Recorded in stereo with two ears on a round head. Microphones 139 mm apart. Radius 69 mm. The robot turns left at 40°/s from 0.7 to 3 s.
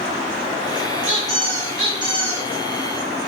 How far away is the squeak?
About 1.4 m.